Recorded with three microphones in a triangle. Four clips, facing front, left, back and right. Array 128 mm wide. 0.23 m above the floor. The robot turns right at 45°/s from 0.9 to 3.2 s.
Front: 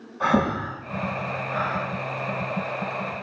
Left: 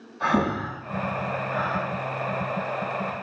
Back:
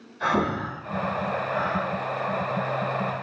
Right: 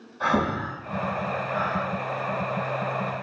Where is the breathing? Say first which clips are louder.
Left 1 dB, front 2 dB; 25° right, 2.5 m; by 1.9 s 15° left, 2.5 m.